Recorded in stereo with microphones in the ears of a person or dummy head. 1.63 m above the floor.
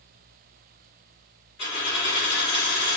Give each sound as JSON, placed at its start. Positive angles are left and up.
{"t": 1.6, "sound": "a dropped coin", "side_deg": 30, "distance_m": 1.8}